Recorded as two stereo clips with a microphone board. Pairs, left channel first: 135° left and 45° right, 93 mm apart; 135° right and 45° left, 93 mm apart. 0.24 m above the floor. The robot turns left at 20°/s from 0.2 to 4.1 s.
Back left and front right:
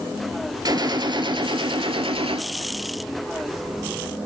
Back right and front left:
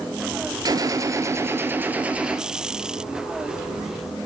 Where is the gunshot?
Straight ahead, 0.7 m; by 2.4 s 35° right, 0.7 m.